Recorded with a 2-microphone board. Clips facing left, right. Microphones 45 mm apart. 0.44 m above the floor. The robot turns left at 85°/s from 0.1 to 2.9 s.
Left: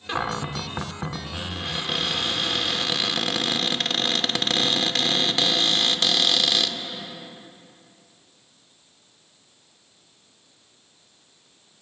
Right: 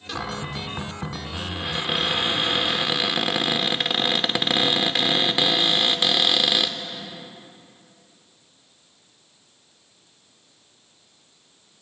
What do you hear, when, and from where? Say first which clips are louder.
0.1 s a cupboard door: left 3 dB; 25° left (ahead or behind), 0.6 m; by 6.8 s 15° right (ahead or behind), 0.6 m